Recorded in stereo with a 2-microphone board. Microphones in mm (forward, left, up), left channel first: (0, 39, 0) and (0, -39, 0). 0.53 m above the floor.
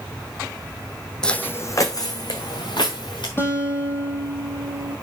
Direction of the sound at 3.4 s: 30° left (ahead or behind).